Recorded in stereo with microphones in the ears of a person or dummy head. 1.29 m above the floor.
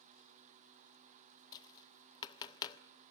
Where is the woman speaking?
I don't hear a woman speaking.